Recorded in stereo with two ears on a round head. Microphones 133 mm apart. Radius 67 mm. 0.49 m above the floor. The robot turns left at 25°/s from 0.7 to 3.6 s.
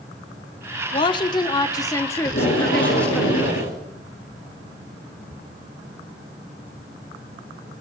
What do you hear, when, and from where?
0.9 s a woman speaking: 65° left, 1.1 m; by 3.2 s 5° left, 1.1 m
2.2 s tape being pulled: 120° left, 7.5 m; by 3.8 s 90° left, 7.5 m